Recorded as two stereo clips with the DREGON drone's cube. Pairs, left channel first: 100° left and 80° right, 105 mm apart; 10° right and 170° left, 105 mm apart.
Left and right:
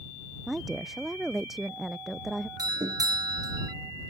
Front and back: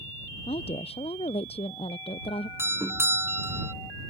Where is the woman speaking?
10° left.